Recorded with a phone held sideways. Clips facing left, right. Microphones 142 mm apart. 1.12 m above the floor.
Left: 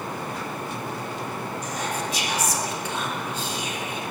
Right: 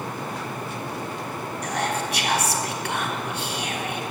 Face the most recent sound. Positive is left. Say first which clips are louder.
# right 5 dB
turn(degrees=-65)  # may be behind; listen again after turning